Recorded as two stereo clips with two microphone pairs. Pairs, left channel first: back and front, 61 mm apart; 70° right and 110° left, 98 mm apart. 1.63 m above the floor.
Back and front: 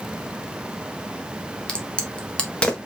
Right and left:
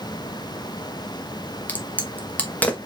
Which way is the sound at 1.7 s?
125° right.